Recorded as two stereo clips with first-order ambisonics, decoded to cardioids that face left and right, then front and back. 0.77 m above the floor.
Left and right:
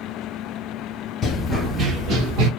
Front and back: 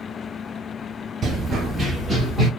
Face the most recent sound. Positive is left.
turn(degrees=-85)